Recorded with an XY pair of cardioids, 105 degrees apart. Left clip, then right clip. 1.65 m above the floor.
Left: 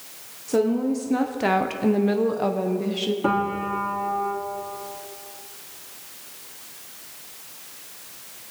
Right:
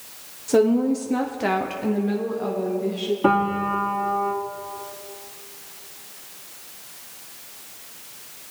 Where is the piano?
25° right, 2.5 m.